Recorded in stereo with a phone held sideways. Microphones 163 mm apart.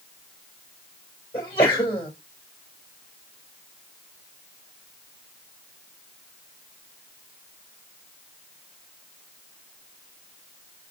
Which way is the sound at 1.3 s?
30° left (ahead or behind).